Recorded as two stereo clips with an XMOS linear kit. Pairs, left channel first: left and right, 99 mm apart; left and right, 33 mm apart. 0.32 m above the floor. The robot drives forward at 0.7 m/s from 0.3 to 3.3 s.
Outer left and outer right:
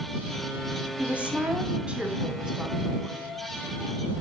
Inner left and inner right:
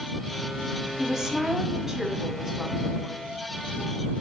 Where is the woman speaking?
15° right (ahead or behind), 1.9 m; by 3.4 s 10° right (ahead or behind), 3.5 m.